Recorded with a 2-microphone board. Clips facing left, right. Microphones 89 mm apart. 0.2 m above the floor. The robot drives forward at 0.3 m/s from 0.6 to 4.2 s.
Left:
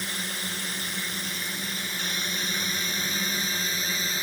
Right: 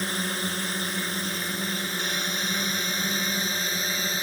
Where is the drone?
45° right (ahead or behind); by 4.2 s 35° right (ahead or behind).